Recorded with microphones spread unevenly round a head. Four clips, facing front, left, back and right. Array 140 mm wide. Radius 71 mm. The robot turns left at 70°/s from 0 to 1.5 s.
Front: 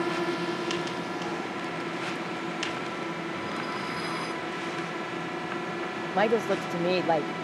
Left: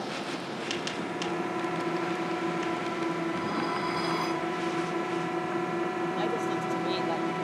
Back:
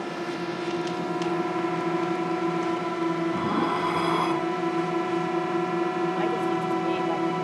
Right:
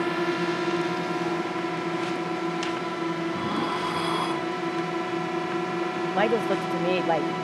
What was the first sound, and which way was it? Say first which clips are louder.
A drone: right 9 dB, front 2 dB; 65° right.